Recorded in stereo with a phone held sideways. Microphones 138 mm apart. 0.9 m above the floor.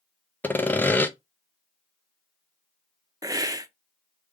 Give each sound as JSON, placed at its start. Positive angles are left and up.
{"t": 0.4, "sound": "sawing", "side_deg": 15, "distance_m": 0.6}
{"t": 3.2, "sound": "a hiss", "side_deg": -25, "distance_m": 0.5}